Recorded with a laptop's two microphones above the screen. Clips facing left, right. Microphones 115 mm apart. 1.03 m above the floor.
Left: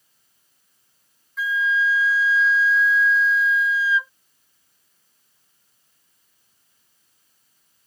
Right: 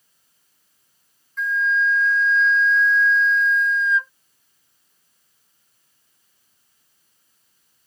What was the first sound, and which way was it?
A flute, 5° left (ahead or behind).